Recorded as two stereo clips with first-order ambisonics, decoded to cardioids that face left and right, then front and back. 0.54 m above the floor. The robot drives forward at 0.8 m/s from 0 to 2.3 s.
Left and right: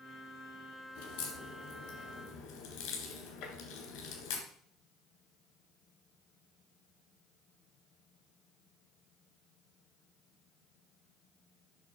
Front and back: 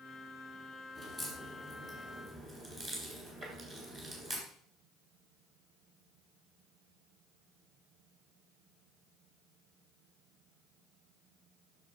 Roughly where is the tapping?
Behind left.